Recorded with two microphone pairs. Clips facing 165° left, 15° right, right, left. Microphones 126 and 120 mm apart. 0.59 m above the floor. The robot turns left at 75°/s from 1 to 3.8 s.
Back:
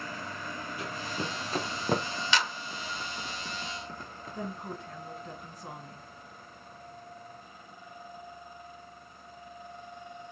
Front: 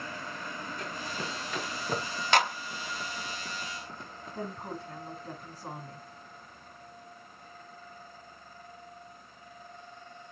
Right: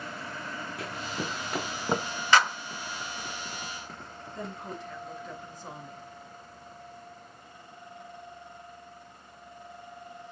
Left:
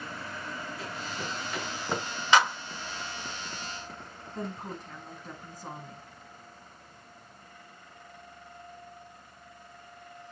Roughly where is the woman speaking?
Ahead left.